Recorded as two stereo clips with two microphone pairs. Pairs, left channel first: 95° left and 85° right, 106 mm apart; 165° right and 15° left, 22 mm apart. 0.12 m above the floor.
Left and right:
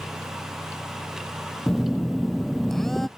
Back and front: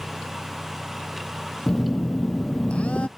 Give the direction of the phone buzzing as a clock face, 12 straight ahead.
6 o'clock.